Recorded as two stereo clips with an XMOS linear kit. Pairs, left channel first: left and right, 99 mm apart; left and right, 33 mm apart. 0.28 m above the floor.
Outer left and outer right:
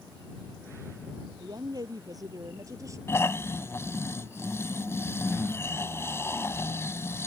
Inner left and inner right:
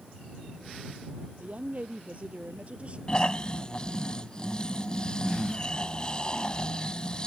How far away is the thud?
I don't hear a thud.